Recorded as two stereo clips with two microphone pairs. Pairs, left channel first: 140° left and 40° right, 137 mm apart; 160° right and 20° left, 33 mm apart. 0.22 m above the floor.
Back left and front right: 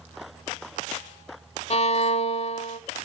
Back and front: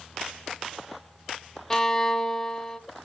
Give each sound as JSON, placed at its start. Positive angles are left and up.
{"t": 1.7, "sound": "a violin", "azimuth_deg": 135, "distance_m": 0.6}